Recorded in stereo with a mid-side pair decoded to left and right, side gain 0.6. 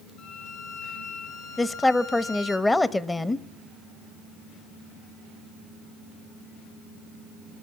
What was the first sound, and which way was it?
A violin, 65° left.